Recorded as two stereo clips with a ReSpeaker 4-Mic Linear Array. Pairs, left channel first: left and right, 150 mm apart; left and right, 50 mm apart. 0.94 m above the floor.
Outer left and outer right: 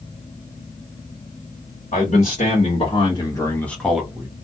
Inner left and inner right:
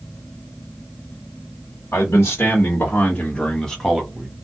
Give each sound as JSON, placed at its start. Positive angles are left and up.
{"t": 1.9, "sound": "a man speaking", "side_deg": 60, "distance_m": 1.3}